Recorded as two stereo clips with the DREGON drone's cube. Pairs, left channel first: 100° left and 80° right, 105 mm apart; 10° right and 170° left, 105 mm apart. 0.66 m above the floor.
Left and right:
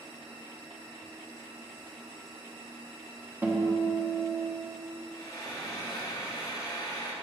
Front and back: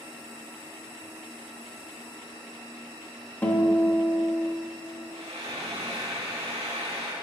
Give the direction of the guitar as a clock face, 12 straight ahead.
2 o'clock.